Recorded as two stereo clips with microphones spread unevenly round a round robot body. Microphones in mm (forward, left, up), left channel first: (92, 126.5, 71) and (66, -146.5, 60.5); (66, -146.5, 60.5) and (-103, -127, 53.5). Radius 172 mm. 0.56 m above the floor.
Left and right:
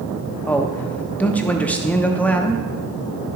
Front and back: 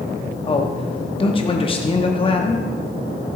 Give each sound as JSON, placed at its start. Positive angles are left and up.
{"t": 0.5, "sound": "a man speaking", "azimuth_deg": 0, "distance_m": 0.8}